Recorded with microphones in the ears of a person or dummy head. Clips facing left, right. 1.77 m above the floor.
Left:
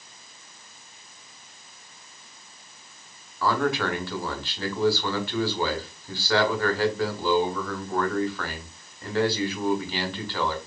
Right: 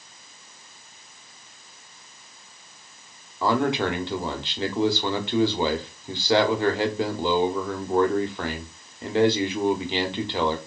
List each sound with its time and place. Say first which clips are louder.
3.4 s a man speaking: right 2 dB; 20° right (ahead or behind), 0.8 m